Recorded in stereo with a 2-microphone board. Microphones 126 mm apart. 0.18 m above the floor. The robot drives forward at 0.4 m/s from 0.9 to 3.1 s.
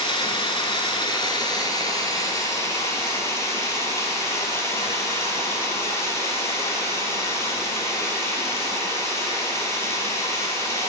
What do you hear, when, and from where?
0.0 s running water: 40° left (ahead or behind), 0.9 m; by 10.9 s 25° left (ahead or behind), 1.7 m